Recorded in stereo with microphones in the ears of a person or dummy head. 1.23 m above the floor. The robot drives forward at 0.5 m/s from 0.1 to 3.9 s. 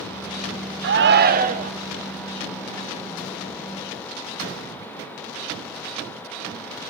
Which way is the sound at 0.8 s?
55° right (ahead or behind).